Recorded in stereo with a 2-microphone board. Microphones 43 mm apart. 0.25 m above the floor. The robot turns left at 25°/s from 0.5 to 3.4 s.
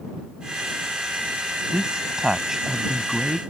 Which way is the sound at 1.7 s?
145° right.